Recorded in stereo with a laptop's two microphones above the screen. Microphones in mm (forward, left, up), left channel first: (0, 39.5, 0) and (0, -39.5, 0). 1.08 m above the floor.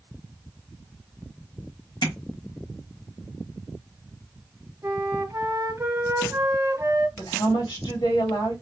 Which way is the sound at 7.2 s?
75° left (ahead or behind).